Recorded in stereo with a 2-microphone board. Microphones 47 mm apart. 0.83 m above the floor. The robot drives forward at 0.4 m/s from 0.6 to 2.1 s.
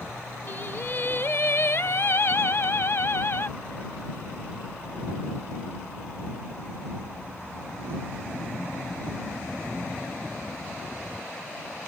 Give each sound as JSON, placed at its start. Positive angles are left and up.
{"t": 0.5, "sound": "singing", "side_deg": 45}